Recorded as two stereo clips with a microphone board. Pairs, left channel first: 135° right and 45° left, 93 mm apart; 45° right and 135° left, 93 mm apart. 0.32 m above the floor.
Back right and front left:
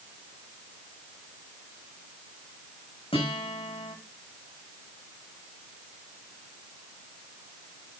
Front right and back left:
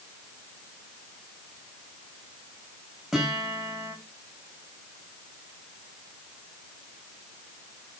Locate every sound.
3.1 s a guitar: 140° right, 9 m